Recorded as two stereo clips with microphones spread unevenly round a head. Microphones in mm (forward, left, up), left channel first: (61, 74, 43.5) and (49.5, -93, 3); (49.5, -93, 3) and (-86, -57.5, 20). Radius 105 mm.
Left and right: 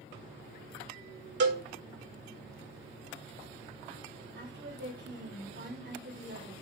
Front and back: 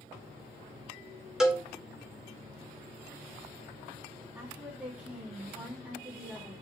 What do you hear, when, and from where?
1.4 s a cowbell: 110° right, 2 m
4.3 s a woman speaking: 115° right, 2.5 m